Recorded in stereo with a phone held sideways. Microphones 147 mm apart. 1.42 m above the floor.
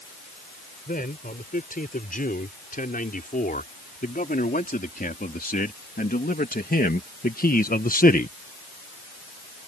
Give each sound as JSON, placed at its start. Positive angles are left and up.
{"t": 0.9, "sound": "a man speaking", "side_deg": 70}